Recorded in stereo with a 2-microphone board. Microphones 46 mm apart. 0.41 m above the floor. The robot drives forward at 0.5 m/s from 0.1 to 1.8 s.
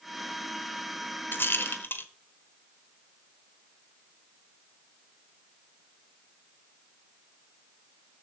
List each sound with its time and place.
1.3 s a rattle: 50° left (ahead or behind), 1.0 m